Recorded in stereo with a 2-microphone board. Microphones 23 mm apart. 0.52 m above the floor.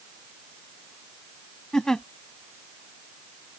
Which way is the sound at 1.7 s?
35° left (ahead or behind).